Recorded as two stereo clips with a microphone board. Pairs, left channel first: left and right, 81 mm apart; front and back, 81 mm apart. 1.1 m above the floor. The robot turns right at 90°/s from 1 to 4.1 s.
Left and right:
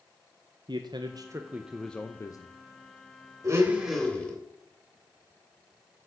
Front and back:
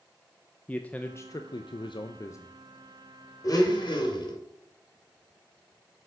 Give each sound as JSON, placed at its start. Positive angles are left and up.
{"t": 0.7, "sound": "a man speaking", "azimuth_deg": -70, "distance_m": 0.5}
{"t": 3.4, "sound": "a blender", "azimuth_deg": -45, "distance_m": 2.0}